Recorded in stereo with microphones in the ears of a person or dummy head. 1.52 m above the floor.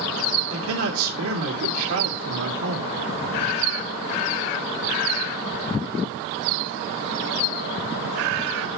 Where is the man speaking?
80° right, 3 m.